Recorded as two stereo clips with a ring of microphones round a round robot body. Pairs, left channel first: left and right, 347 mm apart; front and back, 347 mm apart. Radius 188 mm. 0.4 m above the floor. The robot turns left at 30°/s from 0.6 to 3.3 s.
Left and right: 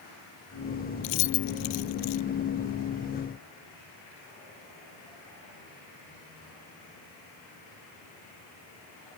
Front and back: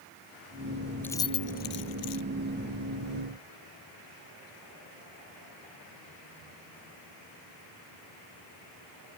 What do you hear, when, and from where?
1.0 s keys jangling: 85° left; by 2.2 s 50° left